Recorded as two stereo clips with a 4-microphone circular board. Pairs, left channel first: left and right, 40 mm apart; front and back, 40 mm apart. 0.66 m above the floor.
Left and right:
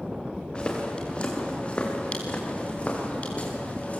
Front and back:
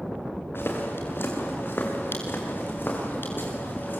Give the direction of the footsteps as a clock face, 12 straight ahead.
11 o'clock.